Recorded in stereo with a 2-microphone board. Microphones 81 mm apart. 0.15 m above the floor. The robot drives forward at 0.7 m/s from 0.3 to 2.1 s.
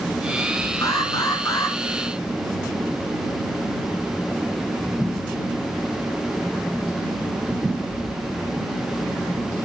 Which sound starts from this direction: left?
An alarm, at 0.8 s.